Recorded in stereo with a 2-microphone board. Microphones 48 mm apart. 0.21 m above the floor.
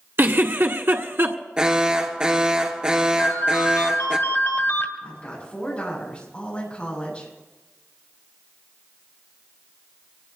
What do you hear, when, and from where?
0.2 s a giggle: 55° right (ahead or behind), 1.5 m
1.6 s an alarm: 20° right (ahead or behind), 2 m
3.2 s a ringtone: 70° left (ahead or behind), 2 m
5.0 s a woman speaking: 25° left (ahead or behind), 10 m